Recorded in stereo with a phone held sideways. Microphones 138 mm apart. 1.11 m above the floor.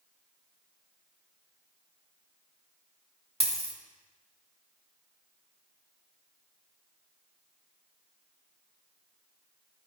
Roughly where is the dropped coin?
Right.